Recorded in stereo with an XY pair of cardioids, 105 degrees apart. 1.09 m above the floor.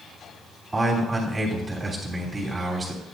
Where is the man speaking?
25° right, 3 m.